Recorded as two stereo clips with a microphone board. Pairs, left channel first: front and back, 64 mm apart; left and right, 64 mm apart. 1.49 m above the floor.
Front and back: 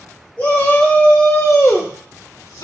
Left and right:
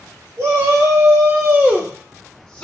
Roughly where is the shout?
Ahead right.